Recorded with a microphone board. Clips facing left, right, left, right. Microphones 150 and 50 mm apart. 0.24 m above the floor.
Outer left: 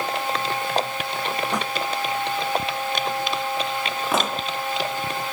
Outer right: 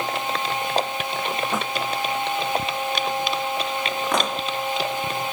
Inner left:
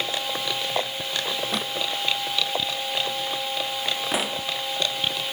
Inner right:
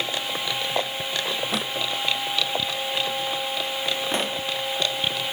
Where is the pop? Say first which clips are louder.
Outer left 1 dB, even; 5° left (ahead or behind).